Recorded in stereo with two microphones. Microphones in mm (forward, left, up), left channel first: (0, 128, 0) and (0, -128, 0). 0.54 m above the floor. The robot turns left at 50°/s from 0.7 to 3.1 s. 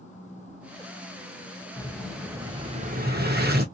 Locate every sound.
1.8 s an explosion: 20° left, 0.7 m; by 3.6 s 50° right, 0.7 m